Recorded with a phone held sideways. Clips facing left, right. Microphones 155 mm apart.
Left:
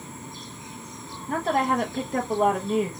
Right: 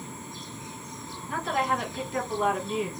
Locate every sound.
1.3 s a woman speaking: 45° left (ahead or behind), 0.8 m